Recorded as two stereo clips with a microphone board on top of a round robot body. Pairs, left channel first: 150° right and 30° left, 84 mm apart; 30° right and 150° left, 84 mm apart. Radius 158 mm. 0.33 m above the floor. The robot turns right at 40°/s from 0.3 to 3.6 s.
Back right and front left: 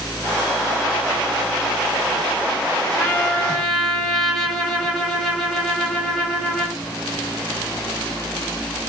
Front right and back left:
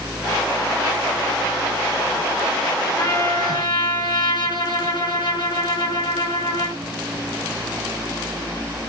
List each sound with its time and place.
3.0 s a trumpet: 85° right, 6.5 m; by 6.8 s 60° right, 6.5 m